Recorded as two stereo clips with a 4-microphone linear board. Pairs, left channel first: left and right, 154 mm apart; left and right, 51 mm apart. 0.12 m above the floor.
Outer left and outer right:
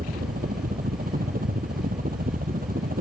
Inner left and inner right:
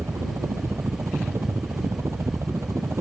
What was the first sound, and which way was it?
A helicopter, 70° right (ahead or behind).